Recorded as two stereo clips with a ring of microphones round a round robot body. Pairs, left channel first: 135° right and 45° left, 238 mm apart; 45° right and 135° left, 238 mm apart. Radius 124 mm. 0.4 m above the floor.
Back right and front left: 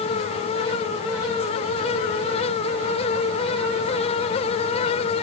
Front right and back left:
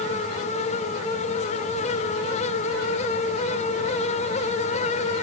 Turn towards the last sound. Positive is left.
No sound to turn to.